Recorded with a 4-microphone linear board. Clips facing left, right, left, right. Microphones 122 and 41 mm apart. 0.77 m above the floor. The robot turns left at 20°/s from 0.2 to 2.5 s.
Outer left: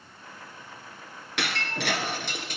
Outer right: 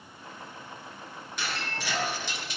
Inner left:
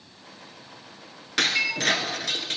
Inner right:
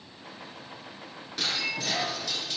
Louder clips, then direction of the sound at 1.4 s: Outer left 4 dB, inner left 7 dB; 75° left (ahead or behind).